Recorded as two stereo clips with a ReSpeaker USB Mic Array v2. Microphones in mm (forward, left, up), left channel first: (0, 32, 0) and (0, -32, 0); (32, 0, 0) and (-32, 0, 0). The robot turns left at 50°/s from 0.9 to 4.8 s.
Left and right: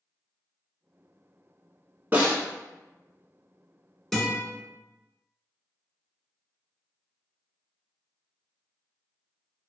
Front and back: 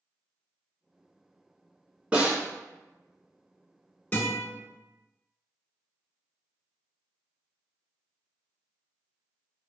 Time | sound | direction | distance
2.1 | a snare drum | 125° right | 0.9 m
4.1 | a guitar | 10° left | 1.7 m